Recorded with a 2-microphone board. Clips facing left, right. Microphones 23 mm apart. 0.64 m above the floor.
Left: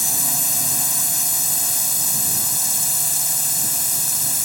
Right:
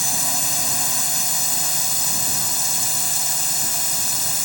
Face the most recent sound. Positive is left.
turn(degrees=-10)  # may be behind; listen again after turning